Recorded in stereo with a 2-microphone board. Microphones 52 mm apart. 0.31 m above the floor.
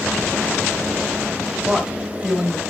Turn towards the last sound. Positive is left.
turn(degrees=-15)  # may be behind; listen again after turning